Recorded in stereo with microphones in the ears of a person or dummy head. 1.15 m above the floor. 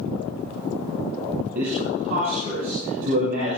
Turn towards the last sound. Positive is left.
turn(degrees=-45)  # may be behind; listen again after turning